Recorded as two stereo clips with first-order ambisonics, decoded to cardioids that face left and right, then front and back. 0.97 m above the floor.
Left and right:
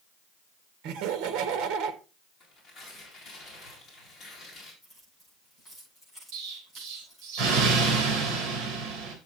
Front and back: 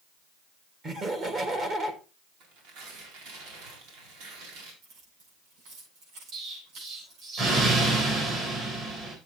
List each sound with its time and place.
0.8 s laughter: 115° right, 1.7 m
2.4 s tearing paper: 160° left, 4 m
4.8 s keys jangling: straight behind, 7.5 m
6.3 s an explosion: 125° right, 4 m